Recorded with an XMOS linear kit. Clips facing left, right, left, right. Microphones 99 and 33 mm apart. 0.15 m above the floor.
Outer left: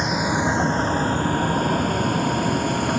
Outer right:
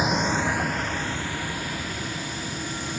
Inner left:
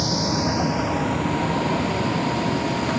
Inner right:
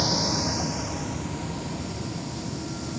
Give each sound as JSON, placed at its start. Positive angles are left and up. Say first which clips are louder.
{"t": 0.0, "sound": "a vehicle", "louder": "outer left 2 dB, inner left 3 dB", "side_deg": -5}